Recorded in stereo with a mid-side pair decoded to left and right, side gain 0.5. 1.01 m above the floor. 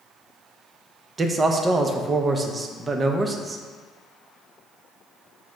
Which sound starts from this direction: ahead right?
A man speaking, at 1.2 s.